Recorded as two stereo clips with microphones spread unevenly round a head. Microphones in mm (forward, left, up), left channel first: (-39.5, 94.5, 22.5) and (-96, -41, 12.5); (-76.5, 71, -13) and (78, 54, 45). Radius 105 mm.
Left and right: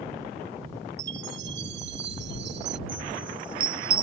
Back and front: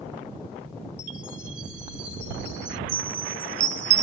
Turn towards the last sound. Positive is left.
turn(degrees=-40)